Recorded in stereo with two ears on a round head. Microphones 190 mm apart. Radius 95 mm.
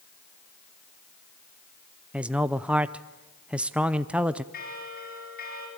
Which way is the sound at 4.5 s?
45° left (ahead or behind).